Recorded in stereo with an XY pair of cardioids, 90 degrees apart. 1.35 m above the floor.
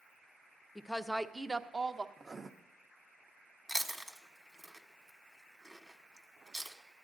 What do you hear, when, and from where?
0.8 s a woman speaking: 20° left, 0.5 m; by 2.1 s 35° right, 0.9 m
2.2 s writing: 25° right, 0.7 m
3.7 s chewing: 5° right, 1.1 m